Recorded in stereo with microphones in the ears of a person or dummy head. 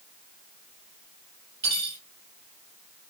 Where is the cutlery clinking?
25° right (ahead or behind), 2 m.